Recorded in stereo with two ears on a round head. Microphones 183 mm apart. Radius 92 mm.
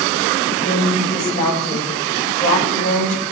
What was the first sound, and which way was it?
A woman speaking, 40° left (ahead or behind).